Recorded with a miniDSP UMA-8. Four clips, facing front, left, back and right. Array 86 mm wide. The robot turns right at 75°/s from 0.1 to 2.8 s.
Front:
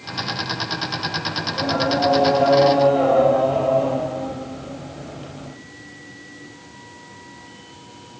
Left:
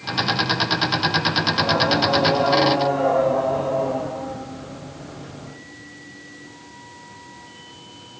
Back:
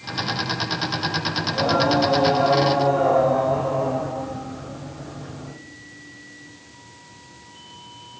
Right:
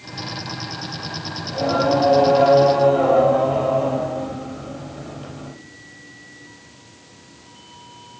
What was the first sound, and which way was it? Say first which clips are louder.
Singing: right 5 dB, back 2 dB; 140° right.